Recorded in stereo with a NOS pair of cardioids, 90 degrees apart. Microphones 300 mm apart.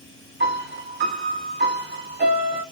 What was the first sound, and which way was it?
A piano, 35° right.